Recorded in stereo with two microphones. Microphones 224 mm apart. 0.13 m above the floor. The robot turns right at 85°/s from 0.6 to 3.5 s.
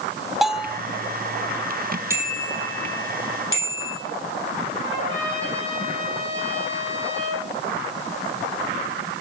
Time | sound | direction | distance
0.4 | a bell | centre (ahead or behind) | 0.8 m
2.1 | a bicycle bell | 10° right (ahead or behind) | 3 m
4.8 | a trumpet | 55° right (ahead or behind) | 10 m